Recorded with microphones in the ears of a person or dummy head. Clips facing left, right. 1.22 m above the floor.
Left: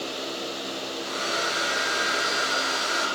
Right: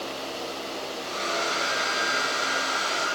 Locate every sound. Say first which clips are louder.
1.0 s a hair dryer: right 1 dB; 15° left (ahead or behind), 5.5 m